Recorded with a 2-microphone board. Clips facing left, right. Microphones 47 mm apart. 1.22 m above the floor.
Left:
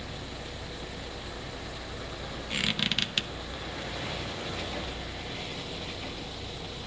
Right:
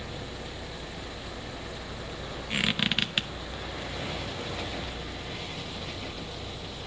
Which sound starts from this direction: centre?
A squeak, at 2.5 s.